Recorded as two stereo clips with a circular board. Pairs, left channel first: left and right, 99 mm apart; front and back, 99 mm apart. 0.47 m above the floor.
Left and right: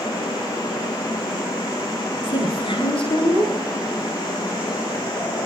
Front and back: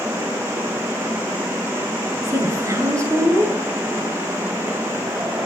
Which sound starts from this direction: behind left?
A woman speaking, at 2.2 s.